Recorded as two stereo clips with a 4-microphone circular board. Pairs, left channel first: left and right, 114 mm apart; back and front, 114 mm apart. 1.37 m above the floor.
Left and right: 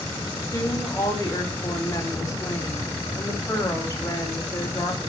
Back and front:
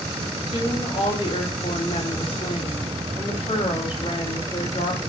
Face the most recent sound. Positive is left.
turn(degrees=150)